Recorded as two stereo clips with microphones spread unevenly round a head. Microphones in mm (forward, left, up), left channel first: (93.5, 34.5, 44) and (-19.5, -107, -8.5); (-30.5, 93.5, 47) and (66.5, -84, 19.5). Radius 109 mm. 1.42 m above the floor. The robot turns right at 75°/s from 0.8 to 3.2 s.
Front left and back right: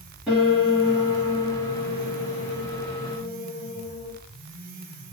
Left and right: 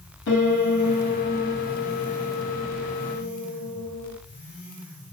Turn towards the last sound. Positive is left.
turn(degrees=-45)